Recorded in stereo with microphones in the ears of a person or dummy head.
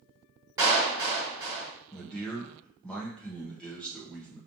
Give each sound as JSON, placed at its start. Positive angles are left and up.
{"t": 0.6, "sound": "a clap", "side_deg": -20, "distance_m": 1.9}
{"t": 1.9, "sound": "a man speaking", "side_deg": 5, "distance_m": 1.0}